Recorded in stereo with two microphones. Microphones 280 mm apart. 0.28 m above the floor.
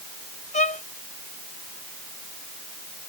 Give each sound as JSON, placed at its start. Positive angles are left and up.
{"t": 0.5, "sound": "a violin", "side_deg": 25}